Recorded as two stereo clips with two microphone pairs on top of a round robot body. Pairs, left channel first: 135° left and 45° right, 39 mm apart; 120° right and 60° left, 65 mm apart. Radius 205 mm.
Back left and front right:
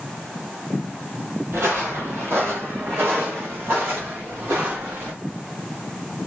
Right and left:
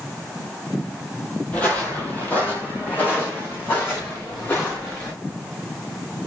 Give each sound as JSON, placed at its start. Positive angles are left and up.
{"t": 1.5, "sound": "footsteps", "azimuth_deg": -55, "distance_m": 1.5}